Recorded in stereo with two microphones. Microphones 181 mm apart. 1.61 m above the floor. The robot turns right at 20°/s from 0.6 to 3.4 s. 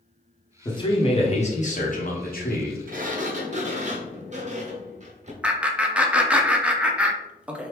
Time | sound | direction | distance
0.7 | a man speaking | 25° left | 1.0 m
2.9 | a sliding door | 55° right (ahead or behind) | 0.6 m
5.4 | laughter | 5° right (ahead or behind) | 0.5 m